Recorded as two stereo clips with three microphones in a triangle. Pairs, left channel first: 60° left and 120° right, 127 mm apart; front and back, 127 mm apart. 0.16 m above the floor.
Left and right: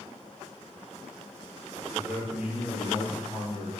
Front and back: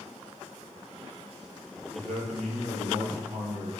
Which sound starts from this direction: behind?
A man speaking, at 1.9 s.